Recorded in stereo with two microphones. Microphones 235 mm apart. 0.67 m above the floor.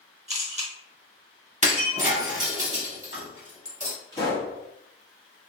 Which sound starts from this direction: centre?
A pop, at 4.1 s.